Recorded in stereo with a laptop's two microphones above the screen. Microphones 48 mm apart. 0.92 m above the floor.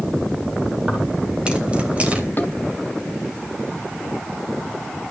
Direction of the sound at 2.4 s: 40° left (ahead or behind).